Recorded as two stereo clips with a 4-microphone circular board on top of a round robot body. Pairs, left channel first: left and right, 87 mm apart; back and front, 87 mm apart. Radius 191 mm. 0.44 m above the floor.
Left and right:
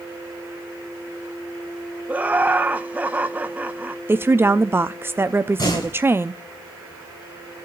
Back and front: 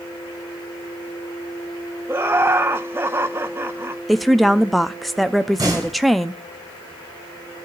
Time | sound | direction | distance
2.1 | laughter | 35° right | 1.0 m
4.1 | a woman speaking | 90° right | 0.8 m
5.6 | a door slam | 50° left | 5.5 m